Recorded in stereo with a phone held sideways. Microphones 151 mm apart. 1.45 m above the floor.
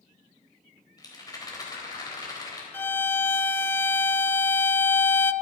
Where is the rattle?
25° left (ahead or behind), 3.5 m.